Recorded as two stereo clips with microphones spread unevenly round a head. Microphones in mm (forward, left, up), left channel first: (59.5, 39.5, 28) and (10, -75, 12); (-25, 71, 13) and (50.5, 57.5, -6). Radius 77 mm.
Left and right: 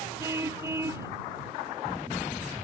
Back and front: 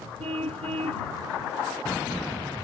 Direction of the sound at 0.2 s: 45° right.